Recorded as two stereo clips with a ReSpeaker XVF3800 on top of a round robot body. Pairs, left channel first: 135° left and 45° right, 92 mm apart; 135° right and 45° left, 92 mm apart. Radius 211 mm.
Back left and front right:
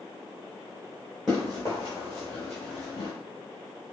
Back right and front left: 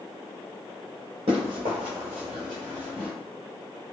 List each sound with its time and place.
1.3 s running footsteps: 45° left, 0.6 m; by 3.1 s straight behind, 0.8 m